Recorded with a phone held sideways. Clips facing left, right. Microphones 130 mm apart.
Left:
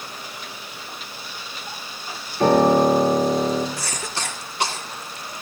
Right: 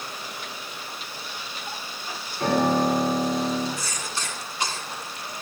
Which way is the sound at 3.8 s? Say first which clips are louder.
Left 3 dB; 75° left (ahead or behind).